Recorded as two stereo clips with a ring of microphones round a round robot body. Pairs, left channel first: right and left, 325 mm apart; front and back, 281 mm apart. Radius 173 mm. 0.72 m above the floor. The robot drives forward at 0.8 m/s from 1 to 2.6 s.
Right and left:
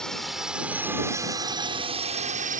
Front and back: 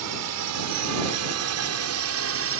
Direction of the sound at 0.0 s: Straight behind.